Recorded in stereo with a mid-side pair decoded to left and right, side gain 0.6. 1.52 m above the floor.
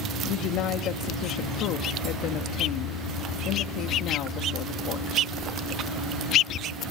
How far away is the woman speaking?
About 0.8 m.